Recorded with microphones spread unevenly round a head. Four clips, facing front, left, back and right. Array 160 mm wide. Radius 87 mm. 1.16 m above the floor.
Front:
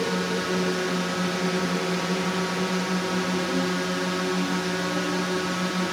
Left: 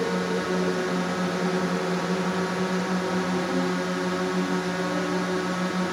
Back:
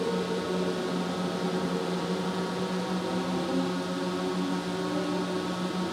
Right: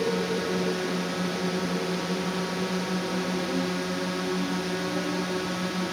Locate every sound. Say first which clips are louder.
0.0 s a drone: left 1 dB, front 3 dB; 45° left